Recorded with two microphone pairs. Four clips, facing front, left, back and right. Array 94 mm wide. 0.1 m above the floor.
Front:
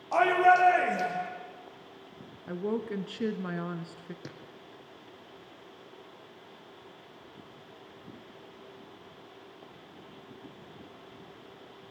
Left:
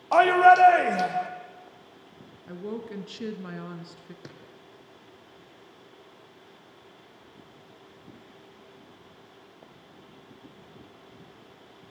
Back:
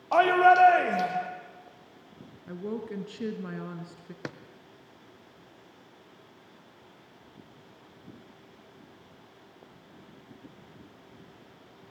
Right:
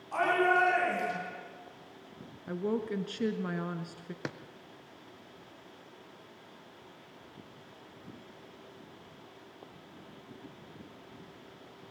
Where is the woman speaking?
25° right, 1.3 m.